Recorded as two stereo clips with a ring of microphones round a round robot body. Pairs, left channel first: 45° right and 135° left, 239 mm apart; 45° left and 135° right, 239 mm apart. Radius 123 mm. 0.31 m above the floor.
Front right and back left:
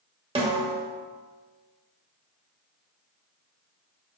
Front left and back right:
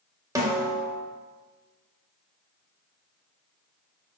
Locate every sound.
0.3 s a snare drum: 165° left, 1.3 m